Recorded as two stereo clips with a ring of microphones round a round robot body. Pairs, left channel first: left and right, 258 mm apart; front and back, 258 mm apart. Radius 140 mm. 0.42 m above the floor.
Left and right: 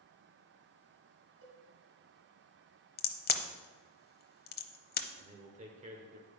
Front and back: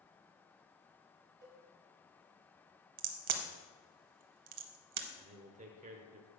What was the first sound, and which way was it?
A cowbell, 130° right.